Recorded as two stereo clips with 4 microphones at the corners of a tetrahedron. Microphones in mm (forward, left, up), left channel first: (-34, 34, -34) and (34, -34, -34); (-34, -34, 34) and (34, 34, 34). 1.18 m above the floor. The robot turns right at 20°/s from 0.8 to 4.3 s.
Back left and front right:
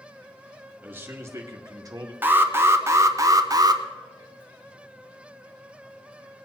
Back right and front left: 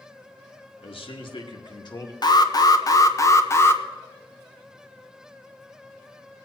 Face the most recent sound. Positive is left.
turn(degrees=-65)